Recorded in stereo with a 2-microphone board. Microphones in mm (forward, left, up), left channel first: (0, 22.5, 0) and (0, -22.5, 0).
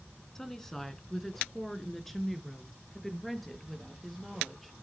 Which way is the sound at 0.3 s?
10° left (ahead or behind).